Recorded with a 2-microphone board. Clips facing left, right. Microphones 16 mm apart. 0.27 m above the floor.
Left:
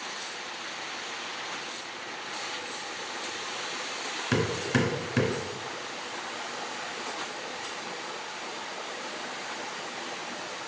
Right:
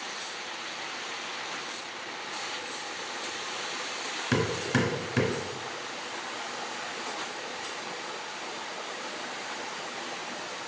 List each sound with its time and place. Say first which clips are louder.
4.3 s hammering: even; centre (ahead or behind), 1.2 m